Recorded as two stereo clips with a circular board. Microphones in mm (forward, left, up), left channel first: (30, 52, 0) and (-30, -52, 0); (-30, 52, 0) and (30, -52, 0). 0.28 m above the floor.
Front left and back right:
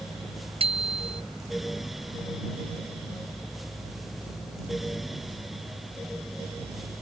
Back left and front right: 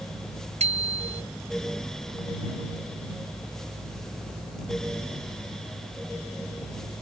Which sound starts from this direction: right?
A bicycle bell, at 0.6 s.